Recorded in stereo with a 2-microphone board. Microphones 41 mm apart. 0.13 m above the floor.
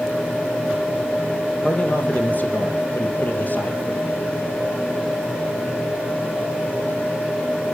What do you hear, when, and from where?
1.6 s a man speaking: 40° left (ahead or behind), 3 m